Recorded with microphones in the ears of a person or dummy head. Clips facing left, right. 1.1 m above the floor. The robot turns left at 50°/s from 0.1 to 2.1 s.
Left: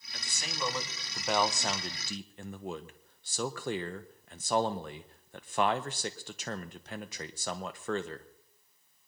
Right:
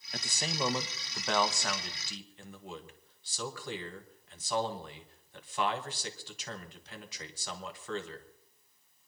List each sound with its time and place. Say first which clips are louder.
0.1 s a man speaking: right 5 dB; 40° right (ahead or behind), 1.0 m; by 8.3 s 35° left (ahead or behind), 1.0 m